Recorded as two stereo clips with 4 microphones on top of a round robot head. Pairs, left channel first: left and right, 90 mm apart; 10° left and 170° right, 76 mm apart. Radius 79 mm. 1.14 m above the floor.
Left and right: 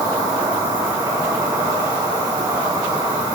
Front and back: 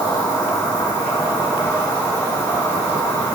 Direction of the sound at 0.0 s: 50° right.